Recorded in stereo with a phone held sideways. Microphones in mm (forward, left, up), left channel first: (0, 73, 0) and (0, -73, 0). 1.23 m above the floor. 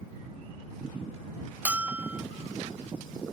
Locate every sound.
1.6 s a bell: 10° right (ahead or behind)